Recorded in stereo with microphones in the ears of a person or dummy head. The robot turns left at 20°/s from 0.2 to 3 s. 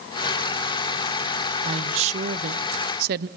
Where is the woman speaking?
30° right (ahead or behind), 0.5 m; by 3.3 s 50° right (ahead or behind), 0.5 m.